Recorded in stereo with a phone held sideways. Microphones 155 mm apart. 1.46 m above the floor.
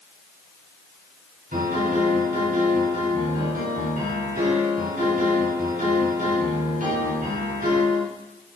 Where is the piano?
70° right (ahead or behind), 3.5 m.